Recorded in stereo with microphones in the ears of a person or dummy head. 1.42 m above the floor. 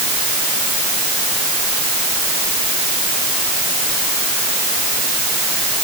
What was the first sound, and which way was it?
Only background noise.